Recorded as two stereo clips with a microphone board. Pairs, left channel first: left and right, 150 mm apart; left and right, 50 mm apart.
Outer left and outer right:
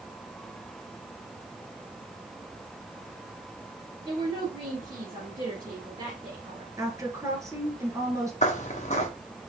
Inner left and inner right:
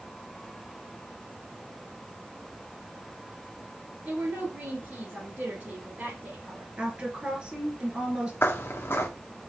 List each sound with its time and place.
4.0 s a woman speaking: 35° right (ahead or behind), 2 m
6.8 s a woman speaking: 20° right (ahead or behind), 1.3 m
8.4 s footsteps: 50° left (ahead or behind), 1.1 m